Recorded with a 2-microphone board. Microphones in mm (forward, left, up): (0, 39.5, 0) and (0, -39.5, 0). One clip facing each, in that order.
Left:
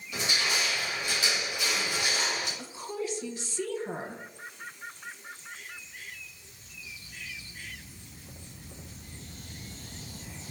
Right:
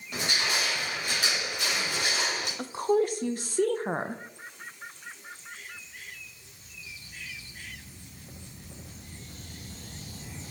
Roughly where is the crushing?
Right.